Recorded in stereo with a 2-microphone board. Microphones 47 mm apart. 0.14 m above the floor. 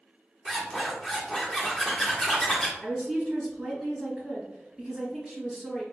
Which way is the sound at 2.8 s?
5° right (ahead or behind).